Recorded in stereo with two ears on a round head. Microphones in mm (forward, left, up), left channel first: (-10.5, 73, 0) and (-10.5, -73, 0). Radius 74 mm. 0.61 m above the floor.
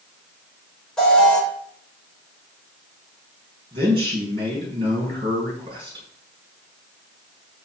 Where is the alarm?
5° left (ahead or behind), 3.5 m.